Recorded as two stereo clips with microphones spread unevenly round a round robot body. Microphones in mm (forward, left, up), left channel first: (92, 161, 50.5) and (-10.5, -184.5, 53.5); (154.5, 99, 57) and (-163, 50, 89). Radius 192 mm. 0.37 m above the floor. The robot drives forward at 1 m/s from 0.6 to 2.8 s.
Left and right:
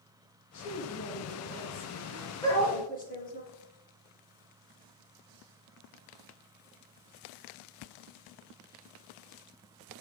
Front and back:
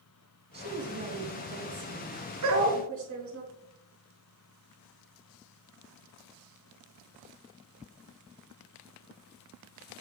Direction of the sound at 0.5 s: 115° left.